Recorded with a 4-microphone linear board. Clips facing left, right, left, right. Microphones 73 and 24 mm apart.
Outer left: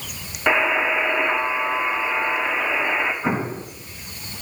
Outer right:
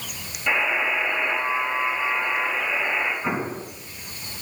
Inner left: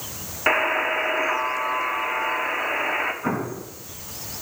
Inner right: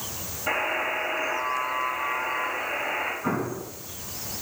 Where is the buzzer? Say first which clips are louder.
Outer left 4 dB, inner left 6 dB; 70° left (ahead or behind), 1.1 m.